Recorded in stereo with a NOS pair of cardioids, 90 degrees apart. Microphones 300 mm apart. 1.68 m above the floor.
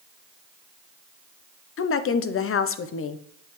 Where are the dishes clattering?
I don't hear dishes clattering.